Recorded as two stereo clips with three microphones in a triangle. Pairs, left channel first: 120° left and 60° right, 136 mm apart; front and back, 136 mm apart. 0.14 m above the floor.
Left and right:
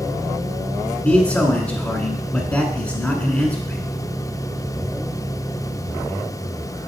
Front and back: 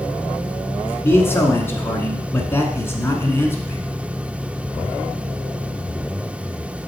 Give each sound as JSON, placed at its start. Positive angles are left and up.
{"t": 1.0, "sound": "a man speaking", "azimuth_deg": 50, "distance_m": 1.1}